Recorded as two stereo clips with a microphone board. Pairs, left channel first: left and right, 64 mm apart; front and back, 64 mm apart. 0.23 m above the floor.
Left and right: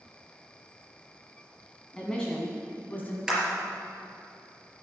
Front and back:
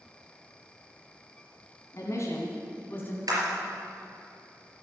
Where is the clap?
170° right, 4.5 m.